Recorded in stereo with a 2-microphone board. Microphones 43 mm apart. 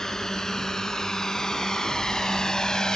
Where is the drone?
10° left (ahead or behind); by 3.0 s 15° left (ahead or behind).